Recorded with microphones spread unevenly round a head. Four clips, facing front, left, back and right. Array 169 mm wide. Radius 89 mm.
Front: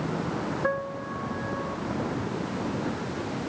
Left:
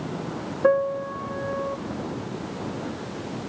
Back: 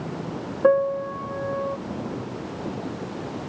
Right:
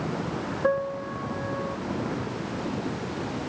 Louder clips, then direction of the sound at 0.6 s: Left 6 dB, back 10 dB; 150° left.